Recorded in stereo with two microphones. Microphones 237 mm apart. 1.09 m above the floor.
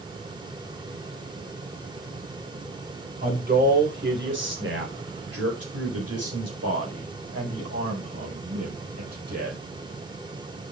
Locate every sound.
3.2 s a man speaking: 35° right (ahead or behind), 4 m; by 9.6 s 80° right, 5 m